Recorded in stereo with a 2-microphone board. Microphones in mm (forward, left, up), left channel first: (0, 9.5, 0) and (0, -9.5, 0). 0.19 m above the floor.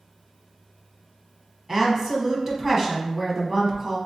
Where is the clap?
I don't hear a clap.